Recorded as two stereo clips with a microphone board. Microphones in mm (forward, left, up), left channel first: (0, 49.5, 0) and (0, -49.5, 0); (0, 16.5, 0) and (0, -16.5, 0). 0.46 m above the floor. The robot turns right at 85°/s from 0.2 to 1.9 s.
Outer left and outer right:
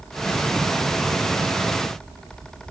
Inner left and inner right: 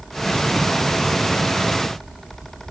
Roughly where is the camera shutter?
I don't hear a camera shutter.